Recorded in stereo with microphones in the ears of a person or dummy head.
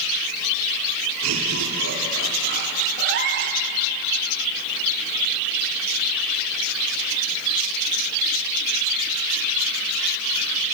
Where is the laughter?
85° right, 3.5 m; by 2.9 s 45° right (ahead or behind), 3.5 m.